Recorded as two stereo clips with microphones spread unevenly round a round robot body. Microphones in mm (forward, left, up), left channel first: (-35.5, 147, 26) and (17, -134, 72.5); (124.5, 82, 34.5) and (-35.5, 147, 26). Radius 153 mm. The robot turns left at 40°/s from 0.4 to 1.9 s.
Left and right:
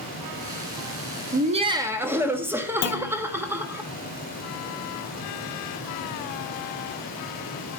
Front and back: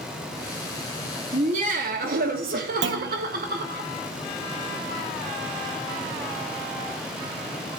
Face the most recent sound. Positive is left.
turn(degrees=145)